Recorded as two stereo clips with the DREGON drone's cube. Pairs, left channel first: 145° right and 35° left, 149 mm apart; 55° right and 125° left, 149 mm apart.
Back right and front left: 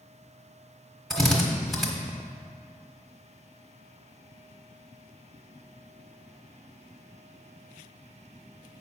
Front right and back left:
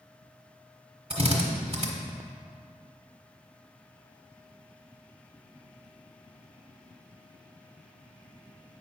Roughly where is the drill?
Behind left.